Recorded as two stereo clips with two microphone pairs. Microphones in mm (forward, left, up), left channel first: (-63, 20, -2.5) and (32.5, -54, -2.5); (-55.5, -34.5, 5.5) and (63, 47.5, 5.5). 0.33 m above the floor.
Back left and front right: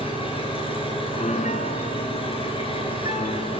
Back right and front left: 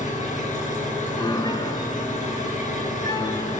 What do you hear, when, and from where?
0.0 s an engine running: 175° right, 4.5 m
1.2 s a piano: 155° left, 1.1 m